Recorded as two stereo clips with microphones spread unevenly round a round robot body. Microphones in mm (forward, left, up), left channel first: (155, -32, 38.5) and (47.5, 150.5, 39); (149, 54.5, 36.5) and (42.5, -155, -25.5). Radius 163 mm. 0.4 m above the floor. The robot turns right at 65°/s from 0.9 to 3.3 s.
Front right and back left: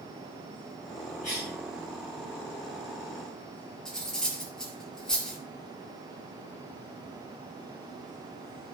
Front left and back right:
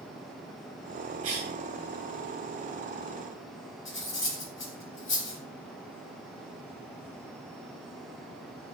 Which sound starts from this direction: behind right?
A cough, at 1.2 s.